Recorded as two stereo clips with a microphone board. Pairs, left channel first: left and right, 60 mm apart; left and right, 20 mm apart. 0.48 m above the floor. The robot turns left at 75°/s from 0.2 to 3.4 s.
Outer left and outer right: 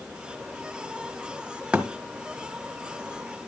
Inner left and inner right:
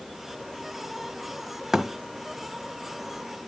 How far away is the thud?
About 1.6 m.